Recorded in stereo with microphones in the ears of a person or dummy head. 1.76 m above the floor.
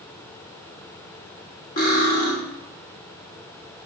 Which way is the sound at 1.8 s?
45° left (ahead or behind).